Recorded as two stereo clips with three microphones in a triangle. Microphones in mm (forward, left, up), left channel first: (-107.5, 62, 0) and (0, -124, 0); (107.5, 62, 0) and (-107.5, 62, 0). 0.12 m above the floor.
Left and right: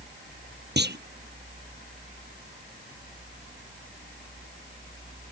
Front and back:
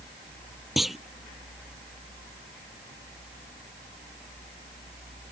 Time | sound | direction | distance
0.8 | a clunk | 90° right | ?